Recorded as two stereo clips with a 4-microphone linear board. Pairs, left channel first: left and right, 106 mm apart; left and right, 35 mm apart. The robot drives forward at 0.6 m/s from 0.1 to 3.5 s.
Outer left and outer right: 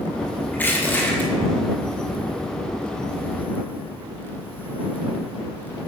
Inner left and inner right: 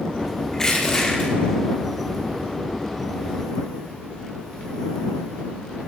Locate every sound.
0.5 s crushing: 15° left (ahead or behind), 5 m; by 1.3 s 20° left (ahead or behind), 4.5 m